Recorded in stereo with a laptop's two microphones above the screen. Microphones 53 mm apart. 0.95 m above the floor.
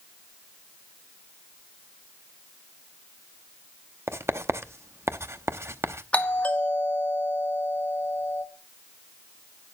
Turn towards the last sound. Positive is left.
turn(degrees=25)  # may be behind; listen again after turning